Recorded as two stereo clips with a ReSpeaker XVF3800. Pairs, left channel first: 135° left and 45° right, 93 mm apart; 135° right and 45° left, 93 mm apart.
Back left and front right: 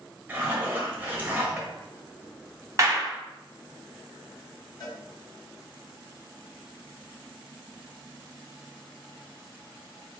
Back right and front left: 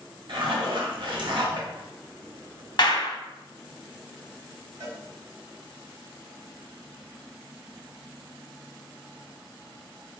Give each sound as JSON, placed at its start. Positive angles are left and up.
{"t": 0.3, "sound": "a zipper", "azimuth_deg": 20, "distance_m": 0.8}
{"t": 2.8, "sound": "a clap", "azimuth_deg": -100, "distance_m": 0.7}
{"t": 4.8, "sound": "a cowbell", "azimuth_deg": 95, "distance_m": 1.6}